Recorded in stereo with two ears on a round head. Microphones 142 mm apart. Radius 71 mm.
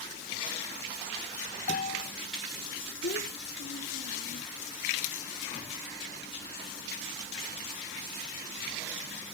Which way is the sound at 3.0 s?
65° left (ahead or behind).